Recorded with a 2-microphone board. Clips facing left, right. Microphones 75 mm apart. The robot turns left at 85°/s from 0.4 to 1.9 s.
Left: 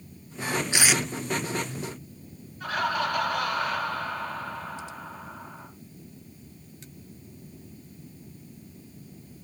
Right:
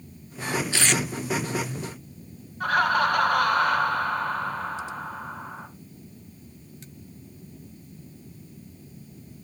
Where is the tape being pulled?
20° left (ahead or behind), 0.6 m; by 1.0 s 5° right (ahead or behind), 0.6 m.